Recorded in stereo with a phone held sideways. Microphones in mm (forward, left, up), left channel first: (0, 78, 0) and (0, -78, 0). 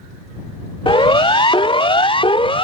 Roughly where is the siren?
Left.